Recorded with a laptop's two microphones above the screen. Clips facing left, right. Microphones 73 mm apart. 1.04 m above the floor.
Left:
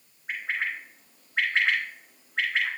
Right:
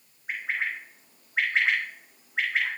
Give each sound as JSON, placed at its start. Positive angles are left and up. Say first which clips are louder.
{"t": 0.3, "sound": "a bird", "louder": "even", "side_deg": -10, "distance_m": 4.0}